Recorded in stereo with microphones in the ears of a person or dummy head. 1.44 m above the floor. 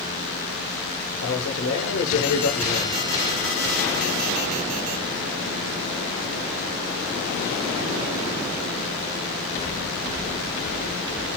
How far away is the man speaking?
About 0.9 m.